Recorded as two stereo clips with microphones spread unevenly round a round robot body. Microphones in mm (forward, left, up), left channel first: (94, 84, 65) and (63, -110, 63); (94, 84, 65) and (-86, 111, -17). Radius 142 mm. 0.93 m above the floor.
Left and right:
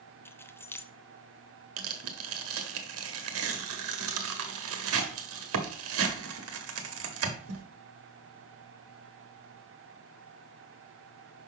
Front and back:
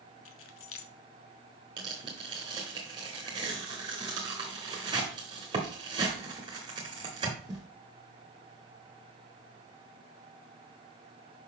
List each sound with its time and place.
0.2 s keys jangling: straight ahead, 0.7 m
1.8 s tearing paper: 110° right, 1.0 m